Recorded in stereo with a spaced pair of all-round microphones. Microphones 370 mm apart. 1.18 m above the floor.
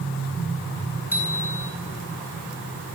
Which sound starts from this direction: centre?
A bicycle bell, at 1.1 s.